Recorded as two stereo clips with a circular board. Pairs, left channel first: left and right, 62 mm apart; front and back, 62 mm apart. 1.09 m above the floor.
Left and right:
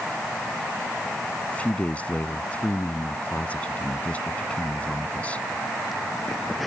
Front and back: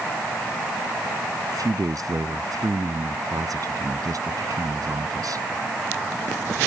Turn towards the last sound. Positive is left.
turn(degrees=160)